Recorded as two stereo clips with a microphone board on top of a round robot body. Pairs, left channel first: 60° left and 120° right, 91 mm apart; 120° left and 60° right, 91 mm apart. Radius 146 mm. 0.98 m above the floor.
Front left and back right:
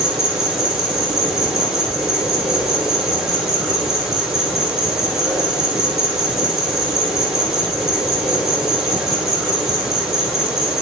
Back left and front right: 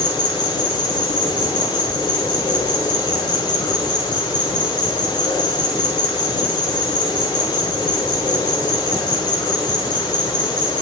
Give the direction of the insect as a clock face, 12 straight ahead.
7 o'clock.